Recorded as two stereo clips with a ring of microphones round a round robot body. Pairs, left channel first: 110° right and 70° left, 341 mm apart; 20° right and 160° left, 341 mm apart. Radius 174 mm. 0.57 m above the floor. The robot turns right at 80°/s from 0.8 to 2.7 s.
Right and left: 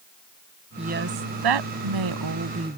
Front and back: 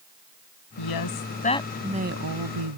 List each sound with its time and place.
0.8 s a woman speaking: 5° right; by 2.8 s 145° left